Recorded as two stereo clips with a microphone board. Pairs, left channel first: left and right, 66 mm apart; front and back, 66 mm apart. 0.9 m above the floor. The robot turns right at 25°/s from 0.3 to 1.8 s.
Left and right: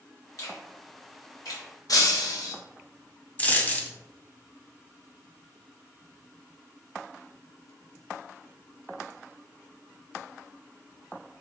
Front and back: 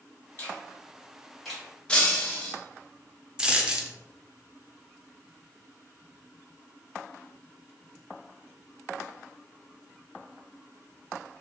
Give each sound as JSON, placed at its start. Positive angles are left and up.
{"t": 0.4, "sound": "a finger snap", "azimuth_deg": 55, "distance_m": 1.5}
{"t": 1.9, "sound": "breaking glass", "azimuth_deg": 75, "distance_m": 0.7}
{"t": 3.4, "sound": "a dropped coin", "azimuth_deg": 120, "distance_m": 0.5}